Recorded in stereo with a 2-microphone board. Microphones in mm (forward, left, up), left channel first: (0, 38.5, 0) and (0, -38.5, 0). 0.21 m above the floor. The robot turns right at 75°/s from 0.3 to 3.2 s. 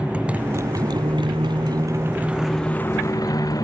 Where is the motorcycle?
165° right; by 3.6 s 55° left.